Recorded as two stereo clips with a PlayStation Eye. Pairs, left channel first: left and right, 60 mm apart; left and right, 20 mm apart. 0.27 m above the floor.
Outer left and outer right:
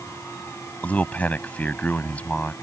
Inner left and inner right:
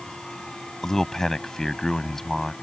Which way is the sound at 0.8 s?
25° left (ahead or behind).